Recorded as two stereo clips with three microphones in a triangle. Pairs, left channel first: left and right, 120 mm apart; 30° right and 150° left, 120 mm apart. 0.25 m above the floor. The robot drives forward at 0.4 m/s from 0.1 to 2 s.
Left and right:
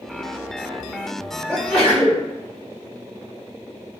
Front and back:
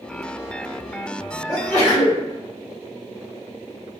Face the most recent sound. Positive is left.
turn(degrees=170)